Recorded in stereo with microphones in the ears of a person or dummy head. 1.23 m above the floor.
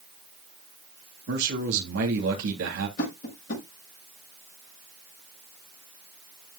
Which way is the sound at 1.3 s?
65° right (ahead or behind).